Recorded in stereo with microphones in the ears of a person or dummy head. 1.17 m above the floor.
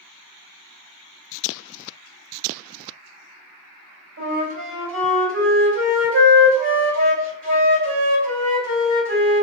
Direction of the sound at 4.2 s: 70° right (ahead or behind).